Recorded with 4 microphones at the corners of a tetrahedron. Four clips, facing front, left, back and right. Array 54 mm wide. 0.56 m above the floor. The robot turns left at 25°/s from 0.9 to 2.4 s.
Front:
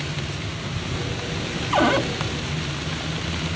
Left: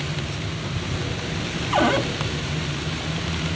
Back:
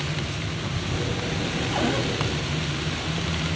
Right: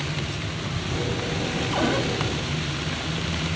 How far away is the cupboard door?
About 1.3 m.